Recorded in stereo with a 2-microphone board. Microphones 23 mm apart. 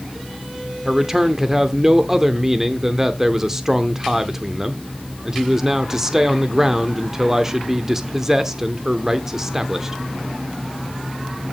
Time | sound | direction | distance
0.8 | a man speaking | 20° right (ahead or behind) | 0.8 m